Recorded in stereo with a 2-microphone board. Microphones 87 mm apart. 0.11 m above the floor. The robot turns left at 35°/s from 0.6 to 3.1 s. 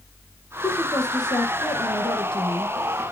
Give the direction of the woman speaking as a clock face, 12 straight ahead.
7 o'clock.